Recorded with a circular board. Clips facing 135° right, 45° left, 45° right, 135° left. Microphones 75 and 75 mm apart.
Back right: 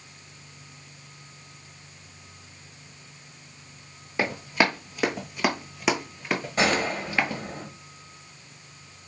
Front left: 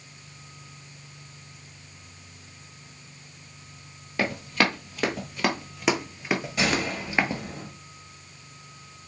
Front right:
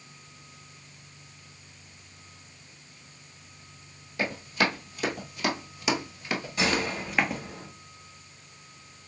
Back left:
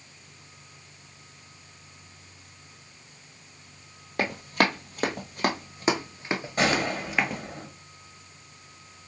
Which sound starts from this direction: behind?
A gunshot, at 6.6 s.